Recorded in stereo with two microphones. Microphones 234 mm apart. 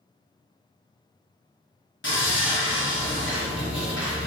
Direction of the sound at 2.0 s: 55° left (ahead or behind).